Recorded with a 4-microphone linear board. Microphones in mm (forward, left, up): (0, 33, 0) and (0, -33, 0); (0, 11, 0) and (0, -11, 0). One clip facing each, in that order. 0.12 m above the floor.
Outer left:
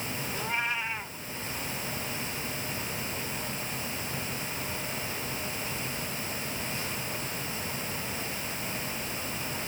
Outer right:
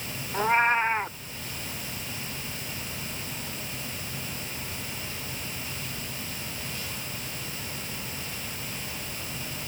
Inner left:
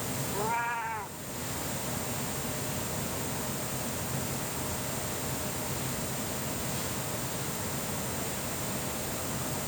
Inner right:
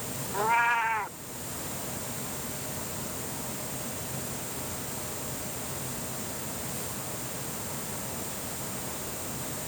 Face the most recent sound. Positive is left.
turn(degrees=-40)  # may be behind; listen again after turning